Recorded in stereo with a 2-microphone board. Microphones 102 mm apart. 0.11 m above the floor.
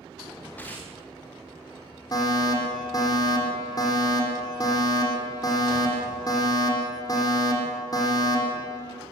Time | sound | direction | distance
0.6 | tearing paper | 15° left (ahead or behind) | 6.5 m
2.1 | a fire alarm | 35° left (ahead or behind) | 9 m